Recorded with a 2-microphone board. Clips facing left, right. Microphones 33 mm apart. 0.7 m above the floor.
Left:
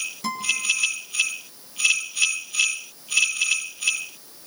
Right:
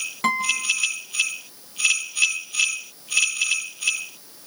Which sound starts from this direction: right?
A guitar, at 0.2 s.